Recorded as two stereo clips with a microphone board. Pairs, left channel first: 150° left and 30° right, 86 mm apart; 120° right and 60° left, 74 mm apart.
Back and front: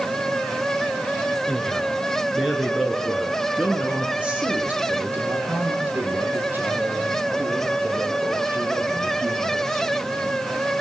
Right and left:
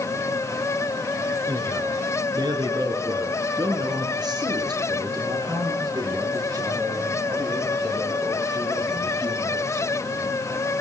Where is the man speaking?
60° left, 4.5 m; by 10.4 s 30° left, 10 m.